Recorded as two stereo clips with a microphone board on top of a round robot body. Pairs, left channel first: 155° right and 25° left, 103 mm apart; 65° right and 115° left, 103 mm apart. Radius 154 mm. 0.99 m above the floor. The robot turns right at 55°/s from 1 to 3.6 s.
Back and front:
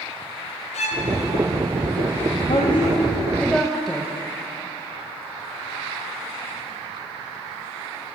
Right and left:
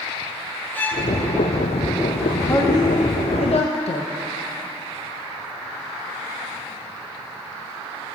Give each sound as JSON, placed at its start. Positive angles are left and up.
{"t": 0.7, "sound": "a violin", "azimuth_deg": -140, "distance_m": 0.8}
{"t": 2.5, "sound": "a woman speaking", "azimuth_deg": -130, "distance_m": 0.9}